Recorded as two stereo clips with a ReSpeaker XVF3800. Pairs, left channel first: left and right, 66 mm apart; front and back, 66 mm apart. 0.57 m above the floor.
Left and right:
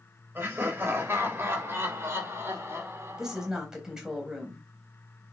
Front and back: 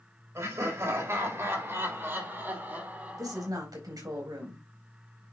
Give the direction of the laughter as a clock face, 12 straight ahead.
5 o'clock.